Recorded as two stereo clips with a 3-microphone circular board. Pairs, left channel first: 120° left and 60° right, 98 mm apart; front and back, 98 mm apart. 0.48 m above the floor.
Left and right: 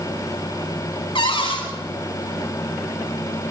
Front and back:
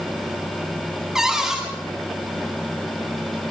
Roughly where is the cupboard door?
Left.